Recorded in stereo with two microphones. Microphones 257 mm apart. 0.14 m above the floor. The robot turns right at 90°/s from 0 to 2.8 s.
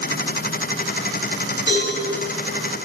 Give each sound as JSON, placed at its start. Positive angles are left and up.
{"t": 1.7, "sound": "a cowbell", "side_deg": -50, "distance_m": 1.7}